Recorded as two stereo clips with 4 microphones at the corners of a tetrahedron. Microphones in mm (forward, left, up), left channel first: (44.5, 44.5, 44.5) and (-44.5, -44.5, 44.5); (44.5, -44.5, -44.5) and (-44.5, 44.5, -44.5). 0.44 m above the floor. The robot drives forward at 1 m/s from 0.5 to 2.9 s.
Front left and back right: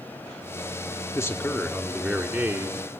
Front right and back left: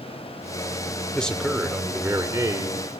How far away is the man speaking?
About 1.4 m.